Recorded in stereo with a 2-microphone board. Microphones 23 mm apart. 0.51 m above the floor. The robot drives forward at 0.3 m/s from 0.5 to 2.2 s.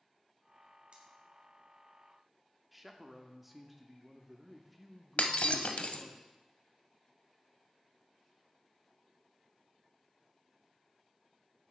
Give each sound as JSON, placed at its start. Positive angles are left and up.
{"t": 0.9, "sound": "cutlery clinking", "side_deg": -50, "distance_m": 1.8}
{"t": 2.7, "sound": "a man speaking", "side_deg": -5, "distance_m": 0.7}
{"t": 5.2, "sound": "breaking glass", "side_deg": 70, "distance_m": 0.6}